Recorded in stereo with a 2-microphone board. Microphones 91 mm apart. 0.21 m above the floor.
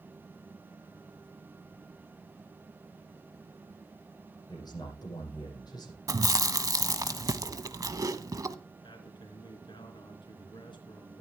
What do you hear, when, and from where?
4.5 s a man speaking: 45° left (ahead or behind), 9 m
6.1 s chewing: 40° right (ahead or behind), 0.9 m
8.8 s a man speaking: 60° left (ahead or behind), 3 m